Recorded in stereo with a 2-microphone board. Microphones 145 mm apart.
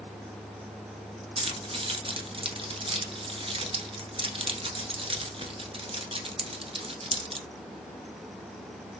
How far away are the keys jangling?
About 0.9 m.